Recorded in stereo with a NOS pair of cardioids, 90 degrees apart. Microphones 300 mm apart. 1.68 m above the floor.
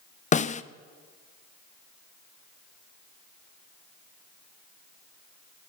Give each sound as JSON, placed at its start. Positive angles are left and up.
{"t": 0.3, "sound": "a snare drum", "azimuth_deg": 25, "distance_m": 0.6}